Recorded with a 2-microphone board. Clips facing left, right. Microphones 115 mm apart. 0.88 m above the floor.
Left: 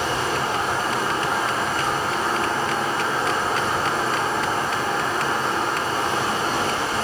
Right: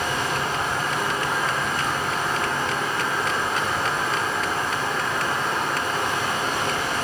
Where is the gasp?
No gasp in this recording.